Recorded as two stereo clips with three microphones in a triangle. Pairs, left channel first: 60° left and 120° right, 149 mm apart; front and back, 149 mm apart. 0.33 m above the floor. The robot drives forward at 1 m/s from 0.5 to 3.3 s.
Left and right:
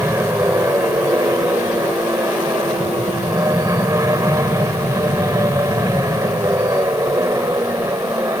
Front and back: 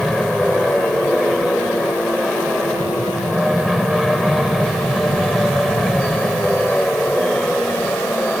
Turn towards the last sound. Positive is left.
turn(degrees=-80)